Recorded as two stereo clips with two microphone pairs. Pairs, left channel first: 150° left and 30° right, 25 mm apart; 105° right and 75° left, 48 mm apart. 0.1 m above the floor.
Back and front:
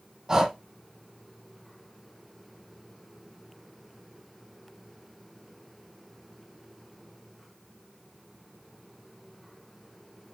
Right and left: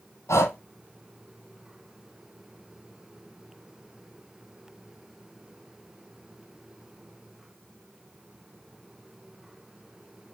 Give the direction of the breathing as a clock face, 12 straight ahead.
3 o'clock.